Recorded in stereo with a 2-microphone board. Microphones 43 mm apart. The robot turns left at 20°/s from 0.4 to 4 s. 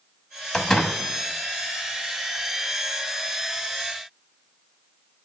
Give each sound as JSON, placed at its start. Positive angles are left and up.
{"t": 0.5, "sound": "a door slam", "side_deg": 20, "distance_m": 1.0}